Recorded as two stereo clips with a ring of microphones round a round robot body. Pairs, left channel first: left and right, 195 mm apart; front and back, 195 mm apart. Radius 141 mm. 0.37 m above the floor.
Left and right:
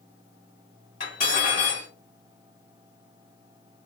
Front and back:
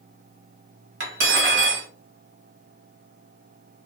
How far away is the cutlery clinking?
About 1.2 m.